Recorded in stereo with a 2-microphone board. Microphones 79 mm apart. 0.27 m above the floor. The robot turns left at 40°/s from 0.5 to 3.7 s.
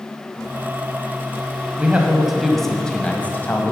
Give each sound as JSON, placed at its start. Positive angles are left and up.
{"t": 1.8, "sound": "a man speaking", "azimuth_deg": -150, "distance_m": 1.4}